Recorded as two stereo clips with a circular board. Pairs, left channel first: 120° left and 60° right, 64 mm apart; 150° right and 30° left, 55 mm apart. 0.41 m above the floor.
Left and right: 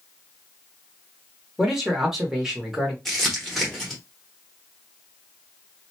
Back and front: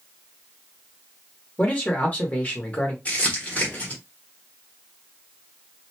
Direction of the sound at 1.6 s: 135° right.